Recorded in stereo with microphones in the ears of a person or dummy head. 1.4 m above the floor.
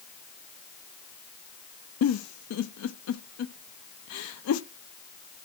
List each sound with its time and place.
2.0 s a giggle: 75° left (ahead or behind), 0.5 m